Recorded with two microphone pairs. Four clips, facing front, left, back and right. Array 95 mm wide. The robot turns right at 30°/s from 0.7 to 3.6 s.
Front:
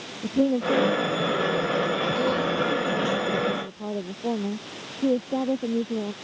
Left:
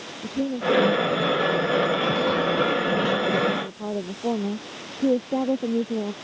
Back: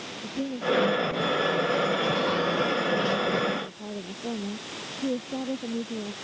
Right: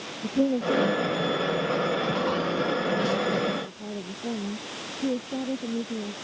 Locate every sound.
0.2 s a woman speaking: 25° right; by 6.1 s 60° left